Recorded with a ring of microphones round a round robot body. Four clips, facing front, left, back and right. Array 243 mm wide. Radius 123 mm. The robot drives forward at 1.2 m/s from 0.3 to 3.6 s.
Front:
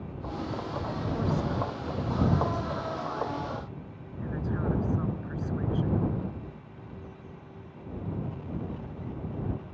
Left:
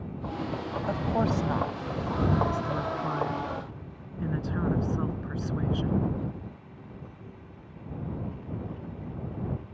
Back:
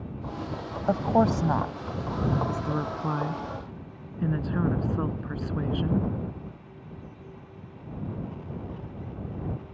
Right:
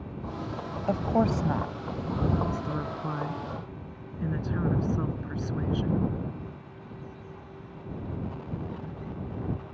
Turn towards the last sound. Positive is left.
turn(degrees=-170)